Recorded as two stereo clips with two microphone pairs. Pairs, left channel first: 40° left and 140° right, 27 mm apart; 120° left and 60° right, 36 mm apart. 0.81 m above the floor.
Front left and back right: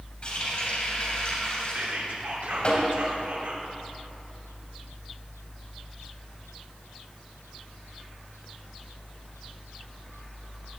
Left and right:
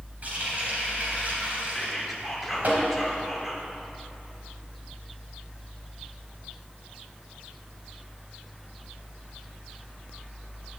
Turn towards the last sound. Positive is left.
turn(degrees=-150)